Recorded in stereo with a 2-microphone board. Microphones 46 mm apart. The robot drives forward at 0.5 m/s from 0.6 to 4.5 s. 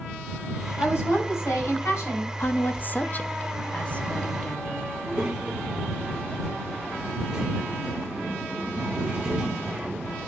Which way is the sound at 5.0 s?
20° right (ahead or behind).